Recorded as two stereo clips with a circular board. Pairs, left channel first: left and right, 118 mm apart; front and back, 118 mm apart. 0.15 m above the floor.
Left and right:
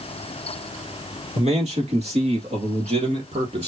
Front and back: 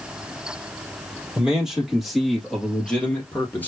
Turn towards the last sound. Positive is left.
turn(degrees=-70)